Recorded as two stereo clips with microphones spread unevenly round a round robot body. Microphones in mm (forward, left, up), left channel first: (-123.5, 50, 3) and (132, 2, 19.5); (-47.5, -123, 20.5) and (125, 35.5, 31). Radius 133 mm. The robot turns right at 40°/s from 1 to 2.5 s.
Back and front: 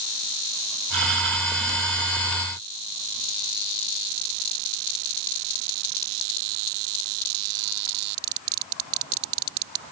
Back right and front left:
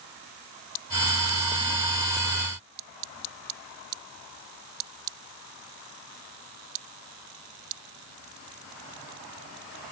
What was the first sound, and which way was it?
Only background noise.